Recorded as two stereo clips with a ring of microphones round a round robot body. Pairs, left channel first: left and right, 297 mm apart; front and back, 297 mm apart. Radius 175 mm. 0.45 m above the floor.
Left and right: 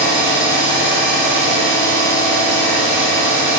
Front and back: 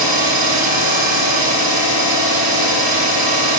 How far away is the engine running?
About 6 m.